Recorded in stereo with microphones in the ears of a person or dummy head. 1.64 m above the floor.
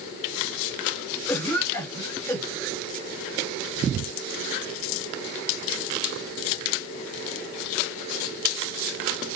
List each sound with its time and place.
1.3 s a cough: 10° left (ahead or behind), 2.5 m